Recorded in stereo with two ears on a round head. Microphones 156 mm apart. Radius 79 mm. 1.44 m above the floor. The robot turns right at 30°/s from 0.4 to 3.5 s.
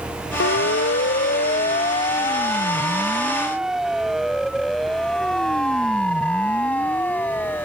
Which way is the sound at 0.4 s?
70° left (ahead or behind).